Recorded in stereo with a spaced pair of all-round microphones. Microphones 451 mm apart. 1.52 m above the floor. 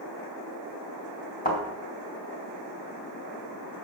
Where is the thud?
20° left (ahead or behind), 3 m.